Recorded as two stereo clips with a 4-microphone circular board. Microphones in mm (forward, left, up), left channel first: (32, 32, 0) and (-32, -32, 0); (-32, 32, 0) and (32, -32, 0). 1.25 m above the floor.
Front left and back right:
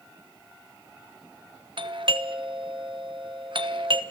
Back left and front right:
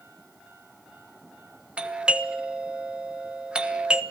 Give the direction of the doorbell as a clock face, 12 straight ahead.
4 o'clock.